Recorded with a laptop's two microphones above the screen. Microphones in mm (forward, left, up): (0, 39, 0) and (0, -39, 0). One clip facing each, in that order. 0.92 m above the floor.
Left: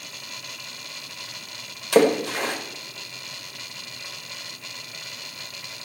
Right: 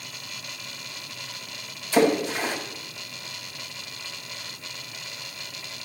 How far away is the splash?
About 4.5 m.